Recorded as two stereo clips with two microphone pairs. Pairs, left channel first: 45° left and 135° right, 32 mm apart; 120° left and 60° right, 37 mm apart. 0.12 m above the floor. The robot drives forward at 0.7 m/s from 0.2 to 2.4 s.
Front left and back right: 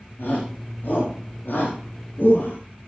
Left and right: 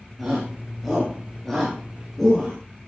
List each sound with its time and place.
0.2 s a shout: 35° left, 7 m; by 2.6 s 45° left, 5.5 m